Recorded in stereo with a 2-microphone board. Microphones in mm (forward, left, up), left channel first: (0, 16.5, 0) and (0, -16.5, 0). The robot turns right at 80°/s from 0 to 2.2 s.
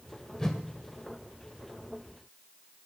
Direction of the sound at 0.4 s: 15° left (ahead or behind).